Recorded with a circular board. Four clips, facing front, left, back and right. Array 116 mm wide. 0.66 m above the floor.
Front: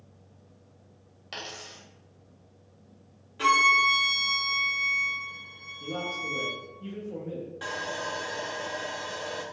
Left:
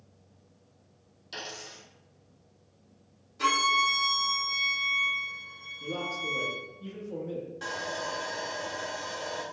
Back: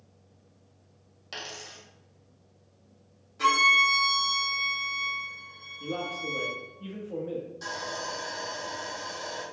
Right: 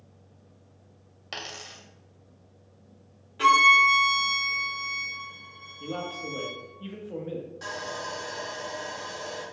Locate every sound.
1.3 s a dropped coin: 80° right, 0.8 m
3.4 s a violin: 60° right, 1.2 m
5.8 s a man speaking: 105° right, 0.7 m
7.6 s sawing: 5° left, 0.6 m